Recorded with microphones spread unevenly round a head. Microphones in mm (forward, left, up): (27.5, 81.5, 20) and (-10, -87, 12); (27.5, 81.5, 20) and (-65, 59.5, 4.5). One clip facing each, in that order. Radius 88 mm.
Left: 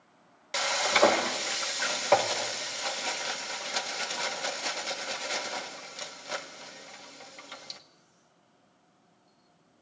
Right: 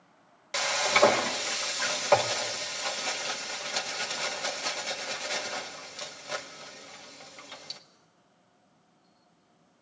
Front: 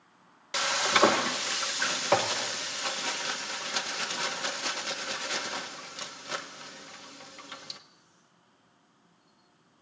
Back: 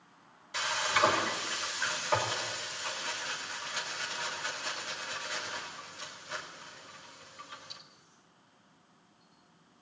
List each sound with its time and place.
0.5 s frying: 10° right, 1.3 m